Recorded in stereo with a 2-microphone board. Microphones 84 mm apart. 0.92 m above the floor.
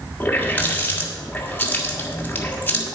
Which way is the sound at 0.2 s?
20° left (ahead or behind).